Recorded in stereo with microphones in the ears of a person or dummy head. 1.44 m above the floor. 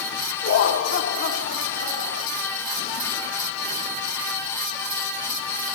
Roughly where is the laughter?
Left.